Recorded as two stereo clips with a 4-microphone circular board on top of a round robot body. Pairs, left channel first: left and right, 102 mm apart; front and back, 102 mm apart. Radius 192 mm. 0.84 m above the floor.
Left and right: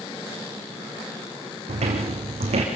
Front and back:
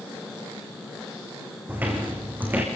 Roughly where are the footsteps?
Right.